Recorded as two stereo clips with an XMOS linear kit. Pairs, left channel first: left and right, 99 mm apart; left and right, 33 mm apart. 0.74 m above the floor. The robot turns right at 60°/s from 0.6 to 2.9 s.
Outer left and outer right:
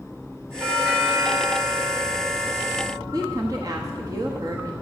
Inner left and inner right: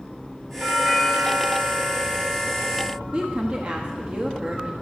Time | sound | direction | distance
0.6 | a doorbell | 175° right | 3.5 m
3.1 | a woman speaking | 35° right (ahead or behind) | 1.0 m